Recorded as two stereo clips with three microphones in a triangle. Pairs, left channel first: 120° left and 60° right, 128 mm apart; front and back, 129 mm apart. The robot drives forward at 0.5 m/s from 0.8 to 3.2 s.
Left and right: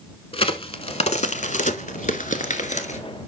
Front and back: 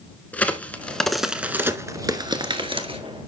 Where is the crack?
75° left, 0.8 m; by 3.0 s 140° left, 1.2 m.